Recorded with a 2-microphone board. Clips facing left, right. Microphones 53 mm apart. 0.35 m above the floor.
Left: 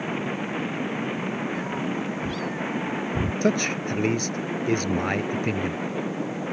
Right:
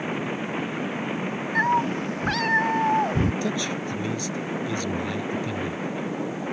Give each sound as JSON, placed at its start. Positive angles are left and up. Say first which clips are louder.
{"t": 1.6, "sound": "a cat meowing", "louder": "right 6 dB", "side_deg": -65}
{"t": 3.4, "sound": "a man speaking", "louder": "left 4 dB", "side_deg": 55}